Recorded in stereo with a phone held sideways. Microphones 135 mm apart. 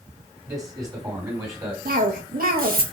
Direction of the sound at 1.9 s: 85° right.